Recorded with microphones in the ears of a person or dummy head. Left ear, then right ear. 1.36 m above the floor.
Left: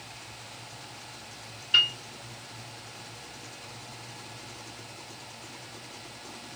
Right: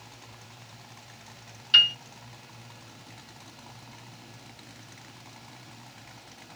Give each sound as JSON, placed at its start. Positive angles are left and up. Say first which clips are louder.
{"t": 1.7, "sound": "a piano", "louder": "right 4 dB", "side_deg": -45, "distance_m": 1.2}